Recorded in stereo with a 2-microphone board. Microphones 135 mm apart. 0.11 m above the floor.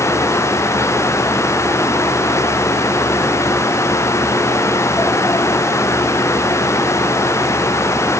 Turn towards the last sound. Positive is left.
No sound to turn to.